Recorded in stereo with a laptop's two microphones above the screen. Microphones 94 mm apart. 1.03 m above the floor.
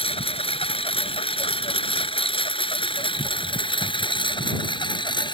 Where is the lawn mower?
85° left; by 5.3 s 55° left (ahead or behind).